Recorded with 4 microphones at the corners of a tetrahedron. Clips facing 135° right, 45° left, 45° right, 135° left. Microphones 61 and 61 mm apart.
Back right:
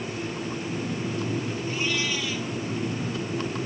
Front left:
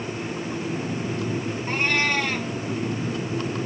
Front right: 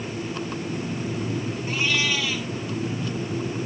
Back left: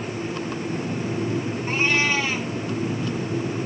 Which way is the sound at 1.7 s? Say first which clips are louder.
Front left 7 dB, back left 3 dB; 80° left.